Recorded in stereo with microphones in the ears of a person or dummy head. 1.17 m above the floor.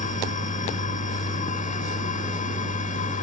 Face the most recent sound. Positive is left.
turn(degrees=40)  # may be behind; listen again after turning